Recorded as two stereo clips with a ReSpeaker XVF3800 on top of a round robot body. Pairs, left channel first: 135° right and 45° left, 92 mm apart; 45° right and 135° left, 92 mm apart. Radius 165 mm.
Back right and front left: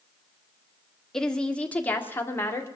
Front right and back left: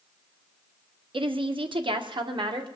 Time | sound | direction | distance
1.1 | a woman speaking | 140° left | 1.8 m